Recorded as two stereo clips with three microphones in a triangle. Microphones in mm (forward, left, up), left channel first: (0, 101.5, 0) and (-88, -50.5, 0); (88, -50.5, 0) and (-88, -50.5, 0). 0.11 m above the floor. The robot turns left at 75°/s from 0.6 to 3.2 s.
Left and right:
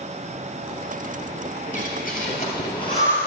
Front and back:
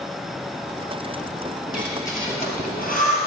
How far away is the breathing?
About 2.5 m.